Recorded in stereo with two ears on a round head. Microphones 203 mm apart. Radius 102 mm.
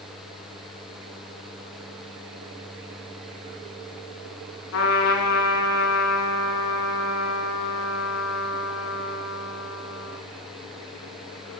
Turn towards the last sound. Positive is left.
turn(degrees=70)  # may be behind; listen again after turning